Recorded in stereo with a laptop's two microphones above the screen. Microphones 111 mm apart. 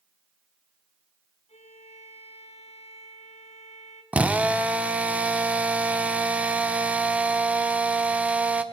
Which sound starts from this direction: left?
A violin, at 1.5 s.